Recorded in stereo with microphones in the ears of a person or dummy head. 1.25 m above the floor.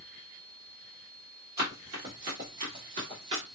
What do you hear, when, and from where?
1.6 s running footsteps: 15° right (ahead or behind), 1.3 m; by 3.4 s 25° right (ahead or behind), 1.4 m